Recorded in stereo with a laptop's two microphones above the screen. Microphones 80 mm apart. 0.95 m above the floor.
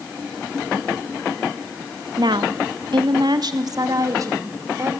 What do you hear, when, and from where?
2.2 s a woman speaking: 65° right (ahead or behind), 1.0 m; by 4.9 s 40° right (ahead or behind), 3 m